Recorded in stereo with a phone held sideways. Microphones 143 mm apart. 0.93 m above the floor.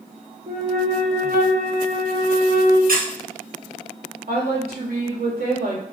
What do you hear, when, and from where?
0.5 s a flute: 75° right (ahead or behind), 0.8 m
2.9 s a squeak: 70° right (ahead or behind), 0.8 m
4.3 s a woman speaking: 70° right (ahead or behind), 2.0 m